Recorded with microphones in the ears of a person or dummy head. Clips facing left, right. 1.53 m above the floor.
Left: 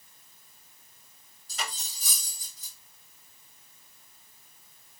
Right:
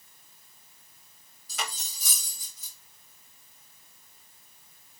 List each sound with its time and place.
1.5 s cutlery clinking: 75° right (ahead or behind), 2.5 m